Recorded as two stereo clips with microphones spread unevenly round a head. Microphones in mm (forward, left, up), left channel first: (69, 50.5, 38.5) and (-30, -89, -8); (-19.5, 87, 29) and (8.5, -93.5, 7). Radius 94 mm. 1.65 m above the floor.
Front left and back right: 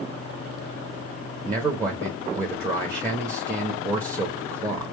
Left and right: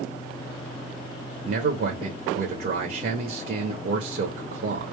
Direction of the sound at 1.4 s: 45° right.